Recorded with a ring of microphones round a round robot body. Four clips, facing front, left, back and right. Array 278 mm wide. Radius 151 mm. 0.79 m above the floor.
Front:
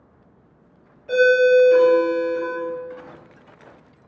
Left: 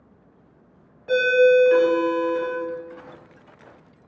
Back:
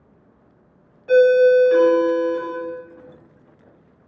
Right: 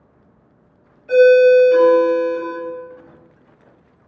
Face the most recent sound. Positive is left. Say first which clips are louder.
# right 7 dB, back 2 dB
turn(degrees=120)